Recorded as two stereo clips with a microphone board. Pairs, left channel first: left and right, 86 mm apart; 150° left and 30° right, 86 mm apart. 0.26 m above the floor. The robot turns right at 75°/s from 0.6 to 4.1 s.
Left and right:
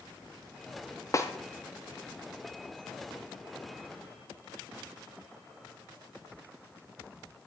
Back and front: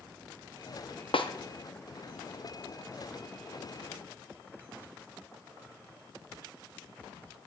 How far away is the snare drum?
About 1.7 m.